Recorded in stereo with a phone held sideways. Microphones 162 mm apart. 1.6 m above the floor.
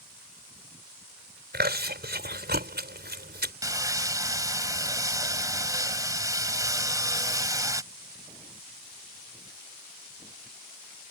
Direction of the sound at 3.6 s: 20° right (ahead or behind).